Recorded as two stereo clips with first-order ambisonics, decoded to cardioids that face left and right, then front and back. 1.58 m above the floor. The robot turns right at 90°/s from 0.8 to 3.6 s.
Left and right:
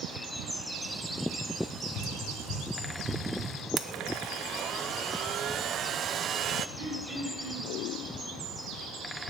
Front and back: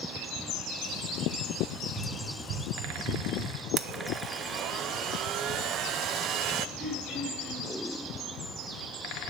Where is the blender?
140° right, 0.6 m.